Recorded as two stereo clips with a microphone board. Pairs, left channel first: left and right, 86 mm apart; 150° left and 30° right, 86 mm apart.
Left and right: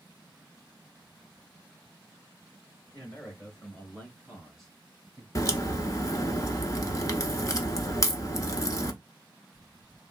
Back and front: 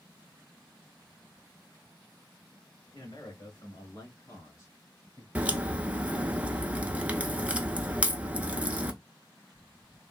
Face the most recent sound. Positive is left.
turn(degrees=40)